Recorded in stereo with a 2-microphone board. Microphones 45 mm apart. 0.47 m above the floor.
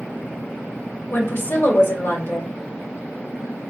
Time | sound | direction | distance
1.1 | a woman speaking | 50° left (ahead or behind) | 1.4 m